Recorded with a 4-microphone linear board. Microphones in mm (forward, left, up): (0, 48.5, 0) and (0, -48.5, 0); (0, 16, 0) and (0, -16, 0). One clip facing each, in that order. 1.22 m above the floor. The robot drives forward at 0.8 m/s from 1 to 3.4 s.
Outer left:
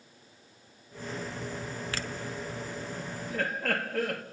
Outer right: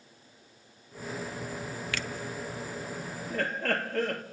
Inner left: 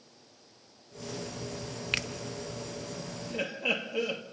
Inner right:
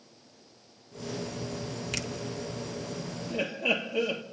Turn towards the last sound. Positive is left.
turn(degrees=5)  # may be behind; listen again after turning